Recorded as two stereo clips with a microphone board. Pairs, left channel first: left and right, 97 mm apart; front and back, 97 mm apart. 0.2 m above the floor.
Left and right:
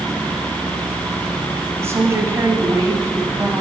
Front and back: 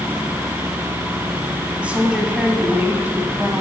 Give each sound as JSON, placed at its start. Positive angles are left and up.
{"t": 1.8, "sound": "a woman speaking", "azimuth_deg": -115, "distance_m": 1.4}